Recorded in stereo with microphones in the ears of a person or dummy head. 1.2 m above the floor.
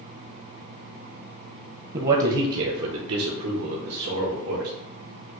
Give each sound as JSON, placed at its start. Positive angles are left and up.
{"t": 1.9, "sound": "a man speaking", "side_deg": -30, "distance_m": 0.7}